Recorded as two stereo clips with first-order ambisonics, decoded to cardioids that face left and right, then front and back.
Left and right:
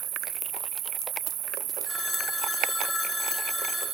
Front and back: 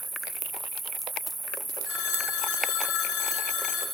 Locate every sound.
0.0 s an insect: 105° right, 0.8 m
1.9 s a phone ringing: 20° left, 3 m